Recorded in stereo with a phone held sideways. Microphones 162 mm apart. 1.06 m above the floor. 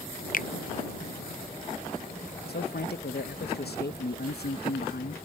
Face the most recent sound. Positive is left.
turn(degrees=80)